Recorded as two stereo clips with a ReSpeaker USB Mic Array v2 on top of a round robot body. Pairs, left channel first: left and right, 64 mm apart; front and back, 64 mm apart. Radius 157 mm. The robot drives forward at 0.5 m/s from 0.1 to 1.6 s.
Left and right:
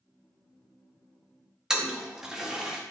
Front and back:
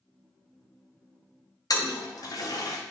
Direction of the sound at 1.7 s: 10° right.